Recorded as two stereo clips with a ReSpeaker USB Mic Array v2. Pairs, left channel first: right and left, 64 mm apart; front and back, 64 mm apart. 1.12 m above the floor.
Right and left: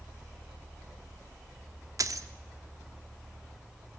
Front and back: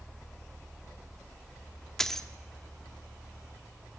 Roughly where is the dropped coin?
Left.